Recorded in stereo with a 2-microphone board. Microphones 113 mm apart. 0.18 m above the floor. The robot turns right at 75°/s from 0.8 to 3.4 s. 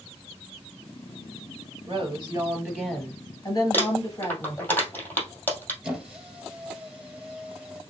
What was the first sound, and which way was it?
A woman speaking, 80° right.